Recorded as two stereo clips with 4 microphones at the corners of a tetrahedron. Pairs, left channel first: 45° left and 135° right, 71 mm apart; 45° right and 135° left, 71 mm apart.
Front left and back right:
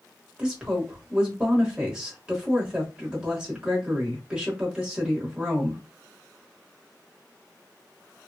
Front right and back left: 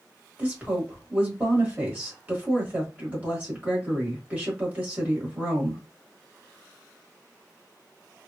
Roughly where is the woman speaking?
Behind.